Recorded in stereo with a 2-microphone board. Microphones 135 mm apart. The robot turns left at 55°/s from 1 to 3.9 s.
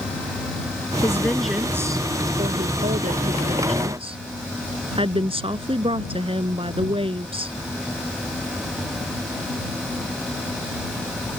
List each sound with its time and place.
1.0 s a woman speaking: 25° left; by 7.5 s 135° right